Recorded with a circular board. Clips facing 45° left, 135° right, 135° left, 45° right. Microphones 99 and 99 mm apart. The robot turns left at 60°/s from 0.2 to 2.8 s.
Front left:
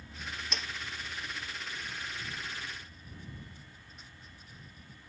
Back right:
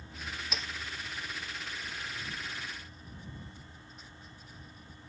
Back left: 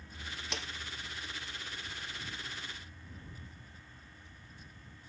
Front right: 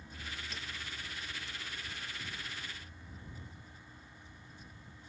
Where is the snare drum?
140° left; by 0.7 s 130° left.